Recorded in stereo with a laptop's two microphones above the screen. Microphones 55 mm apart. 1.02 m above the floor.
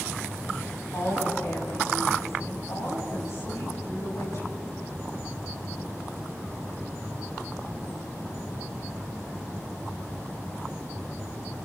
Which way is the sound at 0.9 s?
60° left (ahead or behind).